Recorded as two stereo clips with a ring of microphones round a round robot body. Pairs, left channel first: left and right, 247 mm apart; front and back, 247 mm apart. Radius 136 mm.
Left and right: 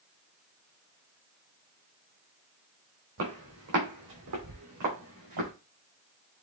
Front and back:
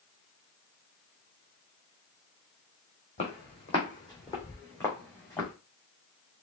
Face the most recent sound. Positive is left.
turn(degrees=-85)